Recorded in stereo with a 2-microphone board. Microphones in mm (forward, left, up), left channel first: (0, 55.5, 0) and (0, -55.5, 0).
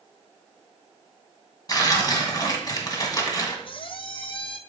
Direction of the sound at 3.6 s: 55° left (ahead or behind).